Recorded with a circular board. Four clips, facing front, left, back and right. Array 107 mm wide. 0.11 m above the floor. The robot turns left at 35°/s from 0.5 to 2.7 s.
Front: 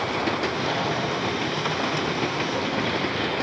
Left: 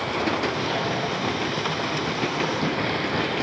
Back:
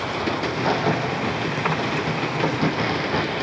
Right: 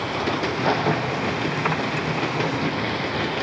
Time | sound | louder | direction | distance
0.4 | a crack | right 4 dB, back 3 dB | 120° right | 6.5 m